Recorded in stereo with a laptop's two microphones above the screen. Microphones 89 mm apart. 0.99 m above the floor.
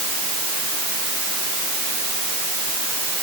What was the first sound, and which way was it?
Only background noise.